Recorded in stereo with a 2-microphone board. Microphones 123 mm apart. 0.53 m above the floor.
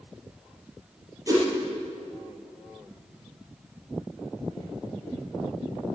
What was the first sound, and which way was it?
A whoosh, 30° right (ahead or behind).